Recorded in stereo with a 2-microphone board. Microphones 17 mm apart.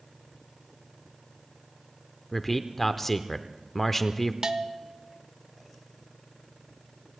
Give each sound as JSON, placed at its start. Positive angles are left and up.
{"t": 2.3, "sound": "a man speaking", "side_deg": 15, "distance_m": 0.8}
{"t": 4.4, "sound": "a bell", "side_deg": -45, "distance_m": 0.8}